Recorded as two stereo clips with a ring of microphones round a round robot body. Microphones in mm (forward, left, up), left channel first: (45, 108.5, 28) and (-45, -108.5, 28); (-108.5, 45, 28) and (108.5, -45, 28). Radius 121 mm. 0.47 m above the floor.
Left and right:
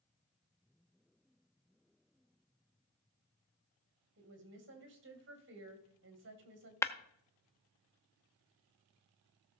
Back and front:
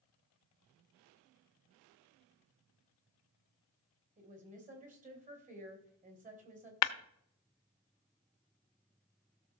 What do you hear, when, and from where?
4.2 s a woman speaking: 80° right, 3 m
6.8 s breaking glass: 145° left, 0.7 m